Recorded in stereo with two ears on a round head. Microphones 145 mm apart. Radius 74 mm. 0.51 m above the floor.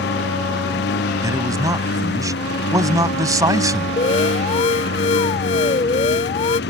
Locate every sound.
0.0 s a lawn mower: 80° left
1.2 s a man speaking: 20° right (ahead or behind)
4.0 s an alarm: 40° left (ahead or behind)